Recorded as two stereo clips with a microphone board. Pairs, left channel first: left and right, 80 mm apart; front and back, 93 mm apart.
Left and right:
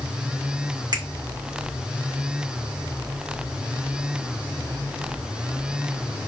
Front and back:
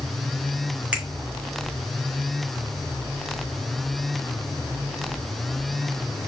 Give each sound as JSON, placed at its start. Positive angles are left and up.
{"t": 0.9, "sound": "a finger snap", "azimuth_deg": -100, "distance_m": 1.9}